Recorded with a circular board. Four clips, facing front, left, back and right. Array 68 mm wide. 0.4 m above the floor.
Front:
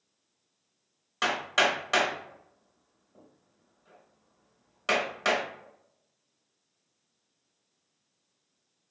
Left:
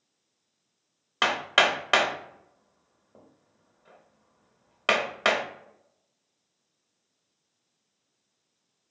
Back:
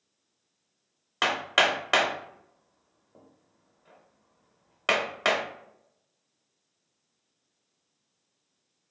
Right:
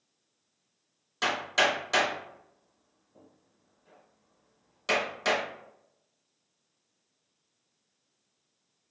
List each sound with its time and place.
1.2 s hammering: 115° left, 0.6 m